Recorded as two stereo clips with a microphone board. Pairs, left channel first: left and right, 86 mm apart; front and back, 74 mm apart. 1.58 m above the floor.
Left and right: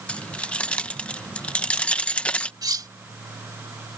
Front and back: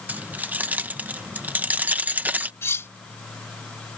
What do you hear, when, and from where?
0.1 s keys jangling: 150° left
2.6 s cutlery clinking: 55° right